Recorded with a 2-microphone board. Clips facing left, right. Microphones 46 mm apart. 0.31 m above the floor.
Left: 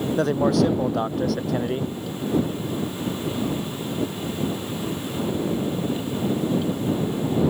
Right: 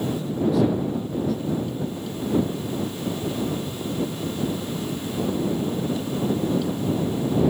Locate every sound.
0.2 s a man speaking: 80° left